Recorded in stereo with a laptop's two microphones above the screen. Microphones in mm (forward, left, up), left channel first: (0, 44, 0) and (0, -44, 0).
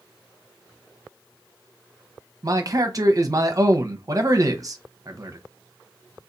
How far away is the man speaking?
About 0.8 m.